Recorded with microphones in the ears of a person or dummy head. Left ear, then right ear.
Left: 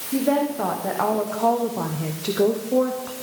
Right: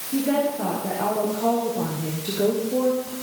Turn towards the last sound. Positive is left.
turn(degrees=75)  # may be behind; listen again after turning